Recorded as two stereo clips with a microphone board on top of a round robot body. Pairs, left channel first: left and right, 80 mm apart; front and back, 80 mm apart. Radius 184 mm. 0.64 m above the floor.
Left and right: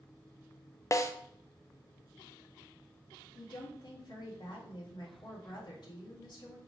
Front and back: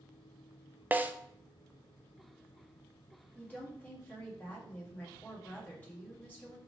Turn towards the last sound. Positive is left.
turn(degrees=65)